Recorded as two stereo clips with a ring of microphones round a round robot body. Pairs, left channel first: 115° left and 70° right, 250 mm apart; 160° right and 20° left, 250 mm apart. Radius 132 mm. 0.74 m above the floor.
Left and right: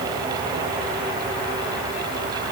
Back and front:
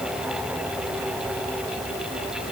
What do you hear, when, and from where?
Only background noise.